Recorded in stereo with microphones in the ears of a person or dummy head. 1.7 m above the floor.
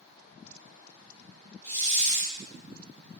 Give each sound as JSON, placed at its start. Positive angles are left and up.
{"t": 1.6, "sound": "a hiss", "side_deg": 15, "distance_m": 0.6}